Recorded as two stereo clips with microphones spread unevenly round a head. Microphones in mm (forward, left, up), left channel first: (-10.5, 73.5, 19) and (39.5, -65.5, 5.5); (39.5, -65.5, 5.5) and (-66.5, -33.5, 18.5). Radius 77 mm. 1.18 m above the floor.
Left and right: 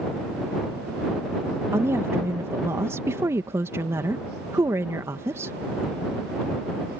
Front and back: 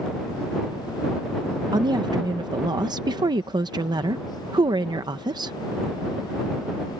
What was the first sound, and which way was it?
A woman speaking, 145° right.